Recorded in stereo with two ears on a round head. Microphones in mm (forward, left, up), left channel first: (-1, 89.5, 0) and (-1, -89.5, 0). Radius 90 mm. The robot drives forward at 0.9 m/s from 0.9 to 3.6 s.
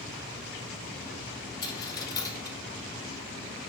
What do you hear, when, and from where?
1.6 s a dropped coin: 20° left (ahead or behind), 1.4 m; by 2.6 s 15° left (ahead or behind), 1.8 m